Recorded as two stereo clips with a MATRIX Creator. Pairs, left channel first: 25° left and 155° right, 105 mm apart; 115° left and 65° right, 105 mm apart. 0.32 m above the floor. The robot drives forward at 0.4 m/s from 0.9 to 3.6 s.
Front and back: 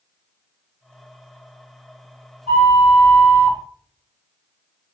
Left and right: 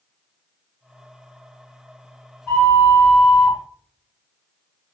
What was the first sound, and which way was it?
A flute, straight behind.